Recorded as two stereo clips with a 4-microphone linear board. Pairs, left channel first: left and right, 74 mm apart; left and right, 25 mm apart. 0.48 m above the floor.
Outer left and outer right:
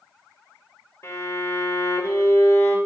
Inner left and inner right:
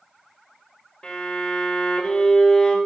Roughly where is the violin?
Left.